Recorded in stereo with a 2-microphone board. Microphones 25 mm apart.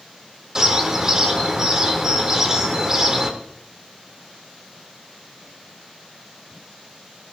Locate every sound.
0.6 s a bird: 25° right (ahead or behind), 1.4 m